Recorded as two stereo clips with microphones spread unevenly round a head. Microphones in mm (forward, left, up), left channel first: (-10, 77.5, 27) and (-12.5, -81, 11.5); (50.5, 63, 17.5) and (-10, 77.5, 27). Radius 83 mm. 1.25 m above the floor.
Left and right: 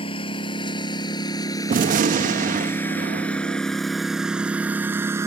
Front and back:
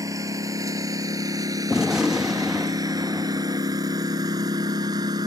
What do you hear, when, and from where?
0.0 s a lawn mower: 145° left; by 5.3 s 165° right
1.7 s a gunshot: 120° right